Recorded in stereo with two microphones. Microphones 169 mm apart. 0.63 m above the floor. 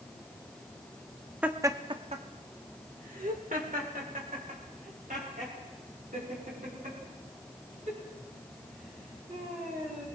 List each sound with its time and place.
1.4 s laughter: 10° right (ahead or behind), 0.8 m; by 10.0 s 55° right (ahead or behind), 7.5 m